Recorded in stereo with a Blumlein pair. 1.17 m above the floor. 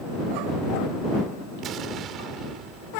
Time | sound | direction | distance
1.6 | an explosion | 30° right | ?